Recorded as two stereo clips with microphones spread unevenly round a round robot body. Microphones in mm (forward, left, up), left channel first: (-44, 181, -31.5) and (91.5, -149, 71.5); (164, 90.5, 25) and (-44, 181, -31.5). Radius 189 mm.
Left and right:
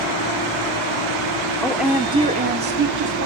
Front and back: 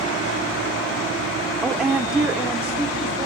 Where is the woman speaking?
115° left, 0.7 m; by 3.3 s 130° right, 1.1 m.